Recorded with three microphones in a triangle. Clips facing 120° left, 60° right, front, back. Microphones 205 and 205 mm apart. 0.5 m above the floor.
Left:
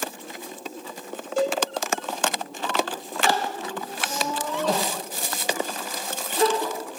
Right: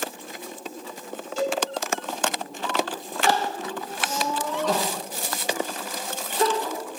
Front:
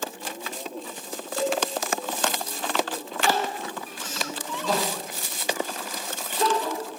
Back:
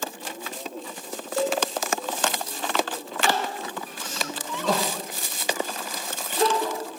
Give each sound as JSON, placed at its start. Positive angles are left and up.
{"t": 1.4, "sound": "a cowbell", "azimuth_deg": 115, "distance_m": 1.6}
{"t": 3.3, "sound": "crying", "azimuth_deg": 175, "distance_m": 2.5}